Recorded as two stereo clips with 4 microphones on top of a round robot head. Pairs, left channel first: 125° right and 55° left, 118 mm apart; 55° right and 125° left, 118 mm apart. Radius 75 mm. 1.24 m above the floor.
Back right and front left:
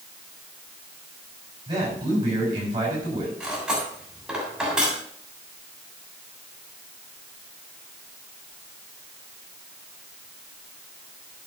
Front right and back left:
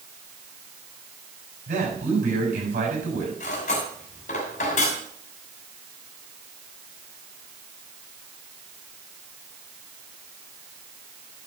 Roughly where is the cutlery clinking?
Ahead right.